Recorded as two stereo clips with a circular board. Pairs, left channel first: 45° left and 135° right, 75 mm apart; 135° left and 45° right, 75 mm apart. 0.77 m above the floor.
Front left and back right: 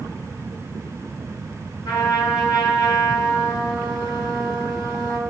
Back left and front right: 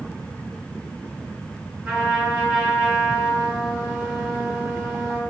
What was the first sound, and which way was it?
A trumpet, 30° left.